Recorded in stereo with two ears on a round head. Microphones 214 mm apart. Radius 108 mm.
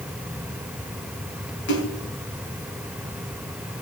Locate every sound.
1.7 s a splash: 55° left (ahead or behind), 4.5 m